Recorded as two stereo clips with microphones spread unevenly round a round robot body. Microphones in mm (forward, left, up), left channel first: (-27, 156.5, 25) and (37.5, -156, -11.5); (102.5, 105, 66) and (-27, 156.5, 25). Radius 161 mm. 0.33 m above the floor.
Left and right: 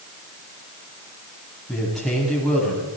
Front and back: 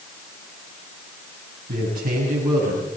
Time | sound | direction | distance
1.7 | a man speaking | 170° right | 9.5 m